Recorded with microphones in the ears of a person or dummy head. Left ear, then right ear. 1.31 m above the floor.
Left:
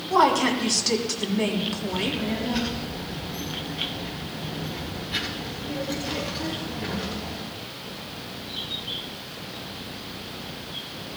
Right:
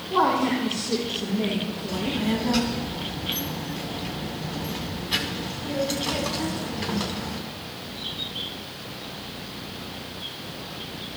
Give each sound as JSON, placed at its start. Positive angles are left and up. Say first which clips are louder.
{"t": 0.1, "sound": "a woman speaking", "louder": "left 2 dB", "side_deg": 70, "distance_m": 3.5}
{"t": 1.9, "sound": "a child speaking", "louder": "right 3 dB", "side_deg": -50, "distance_m": 8.0}